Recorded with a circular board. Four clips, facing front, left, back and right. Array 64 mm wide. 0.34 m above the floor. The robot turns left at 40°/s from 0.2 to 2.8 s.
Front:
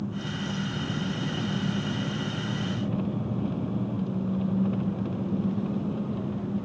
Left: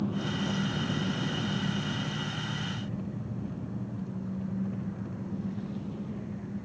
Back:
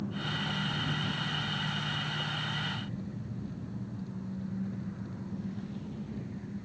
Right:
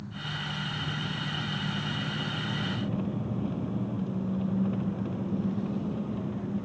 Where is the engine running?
75° left; by 6.7 s 30° right.